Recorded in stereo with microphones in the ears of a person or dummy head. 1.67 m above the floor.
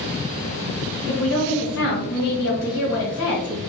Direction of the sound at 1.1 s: 75° left (ahead or behind).